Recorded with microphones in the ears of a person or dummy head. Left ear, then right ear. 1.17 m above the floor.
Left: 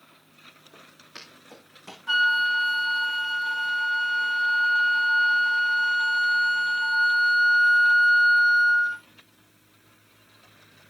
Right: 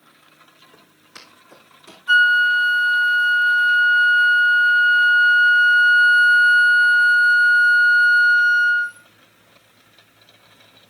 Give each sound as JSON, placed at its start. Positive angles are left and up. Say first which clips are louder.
{"t": 0.7, "sound": "footsteps", "louder": "right 1 dB", "side_deg": 10, "distance_m": 3.0}
{"t": 2.1, "sound": "a flute", "louder": "right 7 dB", "side_deg": 10, "distance_m": 1.3}